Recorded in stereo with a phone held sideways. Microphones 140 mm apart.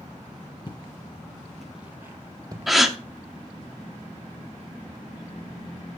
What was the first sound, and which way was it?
Footsteps, 35° left (ahead or behind).